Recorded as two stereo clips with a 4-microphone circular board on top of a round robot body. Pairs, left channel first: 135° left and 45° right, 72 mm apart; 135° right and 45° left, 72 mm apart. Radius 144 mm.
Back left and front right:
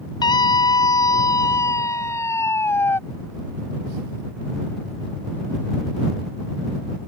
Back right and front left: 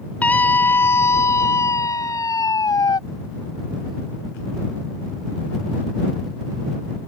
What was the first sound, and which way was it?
A scream, 155° left.